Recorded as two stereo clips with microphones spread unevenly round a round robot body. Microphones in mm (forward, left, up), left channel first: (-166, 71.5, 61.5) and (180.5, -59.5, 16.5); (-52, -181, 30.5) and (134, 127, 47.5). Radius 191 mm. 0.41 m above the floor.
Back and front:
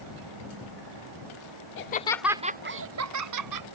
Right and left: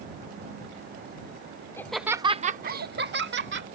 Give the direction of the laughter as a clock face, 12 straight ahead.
6 o'clock.